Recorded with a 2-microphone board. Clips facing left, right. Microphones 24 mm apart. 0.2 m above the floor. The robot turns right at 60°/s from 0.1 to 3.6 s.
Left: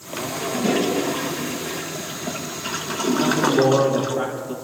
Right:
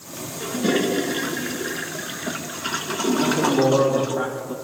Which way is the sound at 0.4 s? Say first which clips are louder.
Even; 160° right.